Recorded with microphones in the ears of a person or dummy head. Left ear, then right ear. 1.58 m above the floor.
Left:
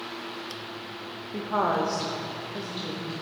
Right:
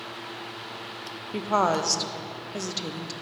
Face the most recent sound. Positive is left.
turn(degrees=-75)  # may be behind; listen again after turning